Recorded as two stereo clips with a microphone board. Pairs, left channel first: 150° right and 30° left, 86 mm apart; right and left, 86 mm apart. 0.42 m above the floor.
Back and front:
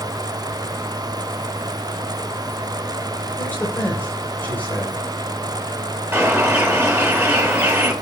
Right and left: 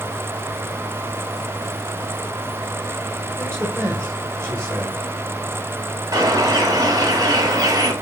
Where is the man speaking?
155° left, 1.6 m.